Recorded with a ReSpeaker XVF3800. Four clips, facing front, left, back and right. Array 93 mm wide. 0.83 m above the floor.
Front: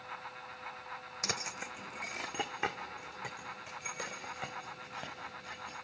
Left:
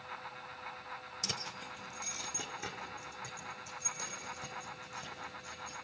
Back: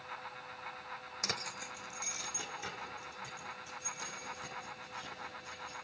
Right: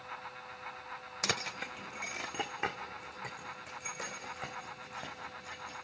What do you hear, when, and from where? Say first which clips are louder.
1.2 s keys jangling: right 9 dB, front 2 dB; 90° right, 0.6 m; by 5.8 s 30° right, 5 m